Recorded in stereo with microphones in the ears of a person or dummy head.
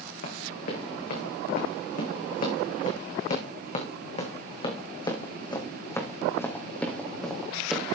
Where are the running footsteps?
60° left (ahead or behind), 5.5 m; by 7.9 s centre (ahead or behind), 3 m.